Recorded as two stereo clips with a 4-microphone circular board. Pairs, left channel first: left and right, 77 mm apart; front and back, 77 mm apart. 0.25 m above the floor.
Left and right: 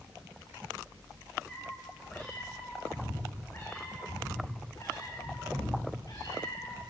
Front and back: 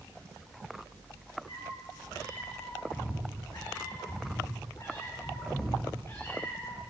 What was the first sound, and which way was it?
A cat meowing, 15° left.